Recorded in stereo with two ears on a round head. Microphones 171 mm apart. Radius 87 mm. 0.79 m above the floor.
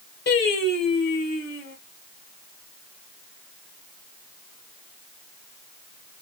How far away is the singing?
About 2.5 m.